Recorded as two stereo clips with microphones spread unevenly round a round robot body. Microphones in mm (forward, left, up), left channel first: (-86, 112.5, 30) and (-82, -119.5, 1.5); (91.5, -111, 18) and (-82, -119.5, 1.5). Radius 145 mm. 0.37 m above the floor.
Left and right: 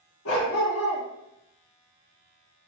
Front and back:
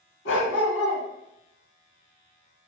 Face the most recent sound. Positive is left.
turn(degrees=40)